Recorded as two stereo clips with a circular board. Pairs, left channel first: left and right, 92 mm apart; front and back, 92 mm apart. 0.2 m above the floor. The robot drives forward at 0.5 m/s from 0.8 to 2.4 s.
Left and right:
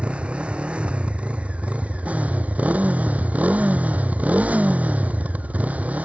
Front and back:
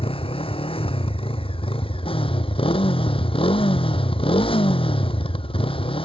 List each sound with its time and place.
0.0 s a motorcycle: 10° right; by 6.0 s 15° right